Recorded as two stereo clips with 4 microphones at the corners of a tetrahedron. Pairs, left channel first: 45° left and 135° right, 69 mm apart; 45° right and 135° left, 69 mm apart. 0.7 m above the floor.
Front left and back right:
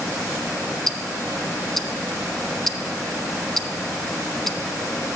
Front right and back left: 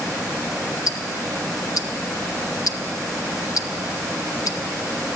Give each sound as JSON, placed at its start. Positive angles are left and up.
{"t": 0.9, "sound": "ticking", "azimuth_deg": -40, "distance_m": 0.6}